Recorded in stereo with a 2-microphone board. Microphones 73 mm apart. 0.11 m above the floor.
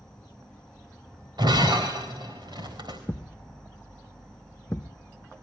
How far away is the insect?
About 2 m.